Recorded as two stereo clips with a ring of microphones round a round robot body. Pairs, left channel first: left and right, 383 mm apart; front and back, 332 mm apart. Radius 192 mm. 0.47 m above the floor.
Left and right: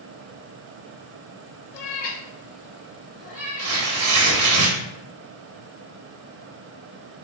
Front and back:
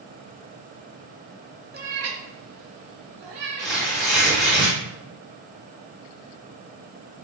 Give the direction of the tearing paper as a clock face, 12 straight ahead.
3 o'clock.